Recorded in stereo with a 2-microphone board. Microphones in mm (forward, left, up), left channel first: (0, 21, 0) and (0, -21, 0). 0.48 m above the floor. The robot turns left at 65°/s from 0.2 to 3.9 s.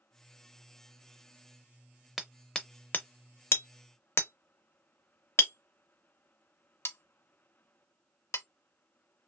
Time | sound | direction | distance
2.2 | hammering | 10° right (ahead or behind) | 0.5 m